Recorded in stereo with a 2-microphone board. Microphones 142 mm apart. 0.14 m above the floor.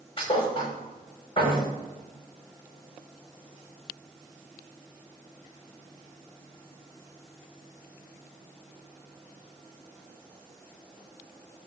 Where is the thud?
35° left (ahead or behind), 3.5 m.